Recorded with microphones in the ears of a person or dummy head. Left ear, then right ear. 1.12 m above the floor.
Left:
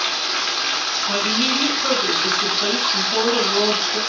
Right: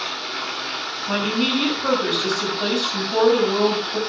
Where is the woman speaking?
Centre (ahead or behind), 6.5 m.